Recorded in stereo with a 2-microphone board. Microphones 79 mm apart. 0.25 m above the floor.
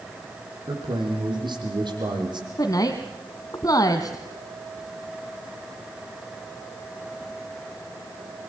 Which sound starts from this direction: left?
A woman speaking, at 2.6 s.